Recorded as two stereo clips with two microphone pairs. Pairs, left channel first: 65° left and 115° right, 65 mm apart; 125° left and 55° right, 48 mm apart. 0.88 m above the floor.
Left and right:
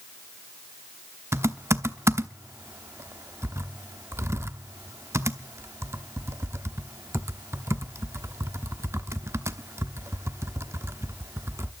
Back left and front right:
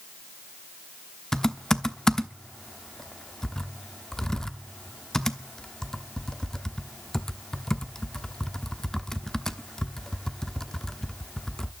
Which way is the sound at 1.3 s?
155° right.